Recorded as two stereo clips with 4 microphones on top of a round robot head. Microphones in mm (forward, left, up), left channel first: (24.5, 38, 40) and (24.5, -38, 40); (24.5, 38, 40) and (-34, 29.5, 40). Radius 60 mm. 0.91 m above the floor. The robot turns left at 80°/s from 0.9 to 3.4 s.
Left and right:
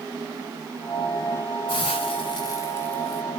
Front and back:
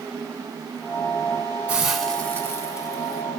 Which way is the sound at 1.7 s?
120° left.